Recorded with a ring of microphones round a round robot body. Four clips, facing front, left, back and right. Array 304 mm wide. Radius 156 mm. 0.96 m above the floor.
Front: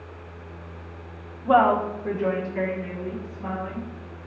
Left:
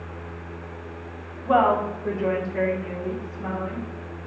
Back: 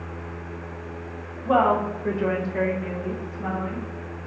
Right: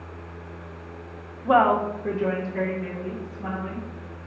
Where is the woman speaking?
60° right, 0.7 m; by 4.3 s 165° left, 1.7 m.